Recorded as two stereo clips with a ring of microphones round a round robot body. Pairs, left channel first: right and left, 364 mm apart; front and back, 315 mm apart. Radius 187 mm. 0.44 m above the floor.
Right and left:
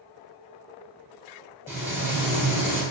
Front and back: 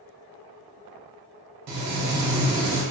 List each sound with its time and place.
1.7 s frying: 175° left, 1.0 m